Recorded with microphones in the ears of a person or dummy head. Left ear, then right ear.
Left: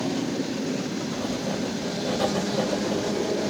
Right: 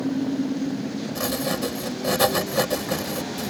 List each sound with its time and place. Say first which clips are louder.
1.1 s writing: right 6 dB; 70° right (ahead or behind)